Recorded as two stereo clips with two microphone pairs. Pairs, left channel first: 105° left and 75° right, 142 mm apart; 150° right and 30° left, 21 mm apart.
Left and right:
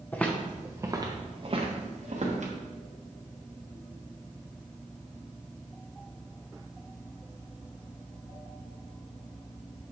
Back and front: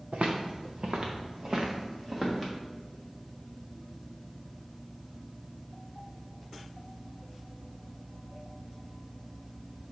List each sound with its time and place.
0.1 s footsteps: 30° left, 1.5 m; by 2.5 s 45° right, 3 m